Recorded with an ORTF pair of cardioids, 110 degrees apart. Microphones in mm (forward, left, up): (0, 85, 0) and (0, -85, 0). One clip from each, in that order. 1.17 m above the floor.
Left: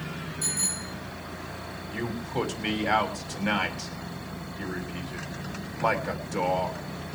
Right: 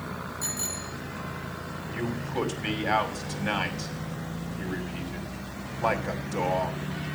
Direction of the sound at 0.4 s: 5° left.